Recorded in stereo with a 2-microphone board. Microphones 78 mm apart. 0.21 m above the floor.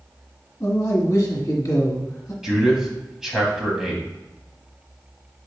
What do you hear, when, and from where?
0.6 s a man speaking: 50° left (ahead or behind), 1.5 m
2.4 s a man speaking: 5° right (ahead or behind), 1.0 m